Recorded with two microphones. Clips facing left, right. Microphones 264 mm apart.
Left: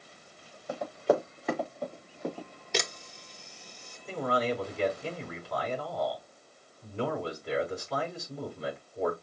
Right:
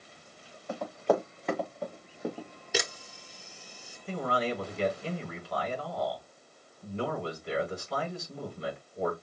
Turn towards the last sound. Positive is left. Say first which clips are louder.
# left 1 dB
turn(degrees=0)  # may be behind; listen again after turning